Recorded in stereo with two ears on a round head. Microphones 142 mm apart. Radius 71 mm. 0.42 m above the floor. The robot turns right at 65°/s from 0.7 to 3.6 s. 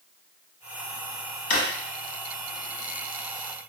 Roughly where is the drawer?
Left.